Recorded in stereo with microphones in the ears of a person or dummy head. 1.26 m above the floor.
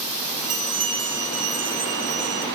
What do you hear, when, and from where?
0.4 s a bell: 35° right (ahead or behind), 1.6 m